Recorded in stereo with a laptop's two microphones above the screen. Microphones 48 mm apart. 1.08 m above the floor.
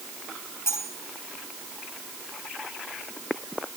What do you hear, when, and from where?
0.7 s cutlery clinking: 55° left (ahead or behind), 6 m